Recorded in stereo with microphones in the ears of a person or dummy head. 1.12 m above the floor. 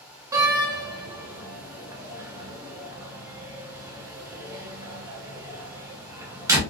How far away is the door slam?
About 1.0 m.